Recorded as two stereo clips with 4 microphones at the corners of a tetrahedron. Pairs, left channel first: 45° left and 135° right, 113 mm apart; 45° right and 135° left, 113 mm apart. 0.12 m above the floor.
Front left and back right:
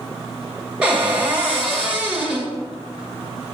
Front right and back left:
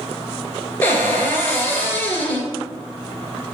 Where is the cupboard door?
75° right, 1.0 m.